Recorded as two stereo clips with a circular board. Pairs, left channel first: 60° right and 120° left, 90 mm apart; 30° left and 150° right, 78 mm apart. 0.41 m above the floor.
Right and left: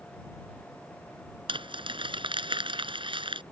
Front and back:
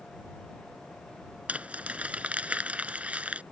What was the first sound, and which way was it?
Crumpling, 135° left.